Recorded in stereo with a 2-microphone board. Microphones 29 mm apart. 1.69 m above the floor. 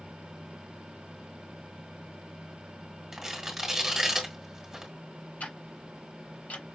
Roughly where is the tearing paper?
Centre.